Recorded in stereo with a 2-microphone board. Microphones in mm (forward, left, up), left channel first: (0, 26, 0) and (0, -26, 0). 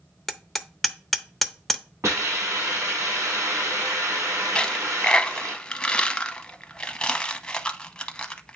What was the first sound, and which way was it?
Hammering, 5° left (ahead or behind).